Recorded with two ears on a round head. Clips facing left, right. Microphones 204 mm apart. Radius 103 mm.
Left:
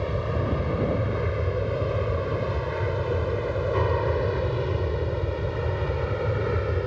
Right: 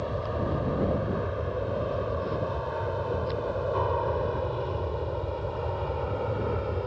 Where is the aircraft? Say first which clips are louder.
Left 2 dB; 30° left (ahead or behind); by 6.9 s 25° left (ahead or behind).